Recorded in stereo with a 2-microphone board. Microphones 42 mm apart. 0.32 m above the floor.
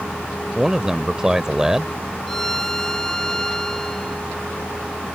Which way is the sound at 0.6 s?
15° right (ahead or behind).